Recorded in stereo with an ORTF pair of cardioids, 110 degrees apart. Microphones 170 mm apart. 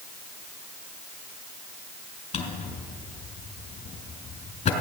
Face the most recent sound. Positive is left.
turn(degrees=45)